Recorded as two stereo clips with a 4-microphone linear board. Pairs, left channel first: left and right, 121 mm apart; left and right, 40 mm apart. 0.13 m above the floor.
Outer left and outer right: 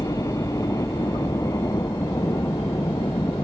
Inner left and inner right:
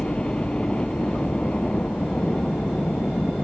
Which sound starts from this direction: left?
A helicopter, at 0.0 s.